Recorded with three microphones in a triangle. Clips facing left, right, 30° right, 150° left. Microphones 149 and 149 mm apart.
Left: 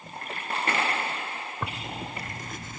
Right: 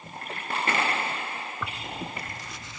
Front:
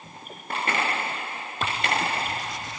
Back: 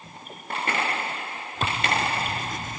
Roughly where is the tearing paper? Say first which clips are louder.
Left 2 dB, back 1 dB; behind left.